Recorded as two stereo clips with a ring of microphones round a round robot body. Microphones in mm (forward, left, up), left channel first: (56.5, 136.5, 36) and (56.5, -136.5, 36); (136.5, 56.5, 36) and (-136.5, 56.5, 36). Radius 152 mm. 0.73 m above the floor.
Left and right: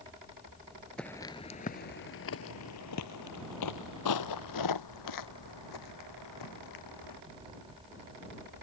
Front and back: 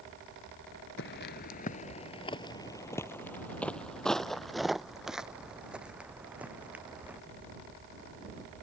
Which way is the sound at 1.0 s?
5° left.